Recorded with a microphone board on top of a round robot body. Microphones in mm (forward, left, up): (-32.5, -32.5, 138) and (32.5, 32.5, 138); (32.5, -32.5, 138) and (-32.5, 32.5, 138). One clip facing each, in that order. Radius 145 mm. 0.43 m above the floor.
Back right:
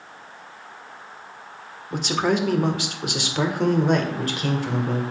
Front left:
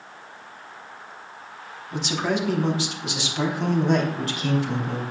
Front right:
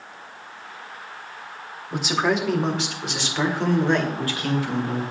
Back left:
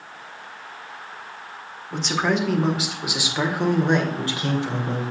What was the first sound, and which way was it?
A man speaking, 125° right.